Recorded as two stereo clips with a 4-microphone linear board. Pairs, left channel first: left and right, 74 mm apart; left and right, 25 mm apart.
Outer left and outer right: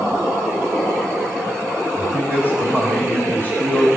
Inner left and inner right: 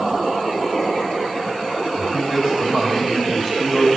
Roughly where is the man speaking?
Right.